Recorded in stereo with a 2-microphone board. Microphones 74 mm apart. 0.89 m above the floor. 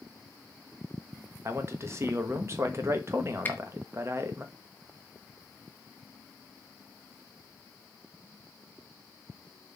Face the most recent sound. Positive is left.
turn(degrees=25)  # may be behind; listen again after turning